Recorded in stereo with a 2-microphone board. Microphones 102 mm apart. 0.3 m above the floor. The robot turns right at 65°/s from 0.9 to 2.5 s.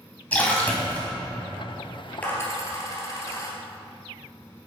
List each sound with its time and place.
0.3 s a splash: 15° left (ahead or behind), 1.7 m; by 1.1 s 5° left (ahead or behind), 1.7 m
2.2 s a dropped coin: 15° left (ahead or behind), 1.8 m; by 3.5 s 30° left (ahead or behind), 1.8 m